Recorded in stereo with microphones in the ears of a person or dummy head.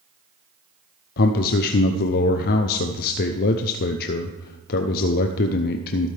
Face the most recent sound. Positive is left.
turn(degrees=50)  # may be behind; listen again after turning